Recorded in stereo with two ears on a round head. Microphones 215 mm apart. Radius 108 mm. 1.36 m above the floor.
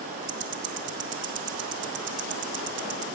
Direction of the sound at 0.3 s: 50° right (ahead or behind).